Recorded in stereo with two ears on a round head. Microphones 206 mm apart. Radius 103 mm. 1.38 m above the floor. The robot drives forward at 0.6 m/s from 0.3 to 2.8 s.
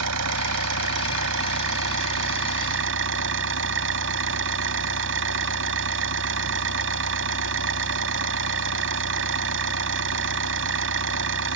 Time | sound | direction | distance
0.0 | an engine running | 70° right (ahead or behind) | ?